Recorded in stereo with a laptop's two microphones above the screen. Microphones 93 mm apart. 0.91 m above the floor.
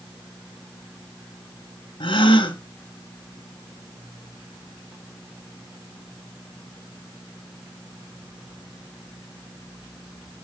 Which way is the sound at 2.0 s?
60° left (ahead or behind).